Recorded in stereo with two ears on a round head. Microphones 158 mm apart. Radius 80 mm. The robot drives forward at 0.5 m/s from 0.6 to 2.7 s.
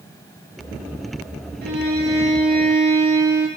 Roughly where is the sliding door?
No sliding door in this recording.